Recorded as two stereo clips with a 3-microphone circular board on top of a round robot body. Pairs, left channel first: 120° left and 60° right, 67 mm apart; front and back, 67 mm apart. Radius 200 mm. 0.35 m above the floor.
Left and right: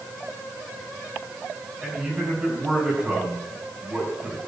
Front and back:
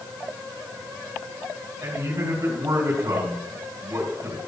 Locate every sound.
1.8 s a man speaking: 135° right, 5.5 m